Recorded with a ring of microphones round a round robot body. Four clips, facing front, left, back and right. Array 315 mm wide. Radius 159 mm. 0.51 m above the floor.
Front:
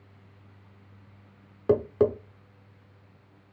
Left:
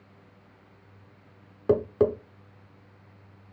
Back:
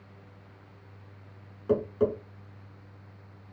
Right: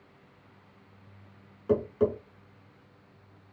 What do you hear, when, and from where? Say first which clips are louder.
1.7 s tapping: left 3 dB, front 3 dB; 45° left, 0.8 m